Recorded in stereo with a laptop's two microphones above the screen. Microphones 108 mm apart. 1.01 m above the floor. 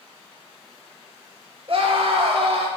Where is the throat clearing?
I don't hear throat clearing.